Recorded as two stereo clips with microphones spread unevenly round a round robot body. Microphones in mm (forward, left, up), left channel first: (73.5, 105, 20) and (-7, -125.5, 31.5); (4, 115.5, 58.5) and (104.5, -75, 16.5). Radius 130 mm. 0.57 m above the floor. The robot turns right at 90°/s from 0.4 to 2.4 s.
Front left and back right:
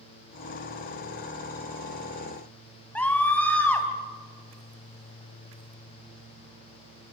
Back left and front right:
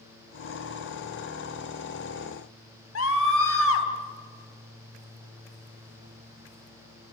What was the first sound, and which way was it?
A scream, 155° left.